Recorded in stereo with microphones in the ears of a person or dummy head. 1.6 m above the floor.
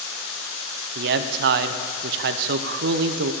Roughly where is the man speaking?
Right.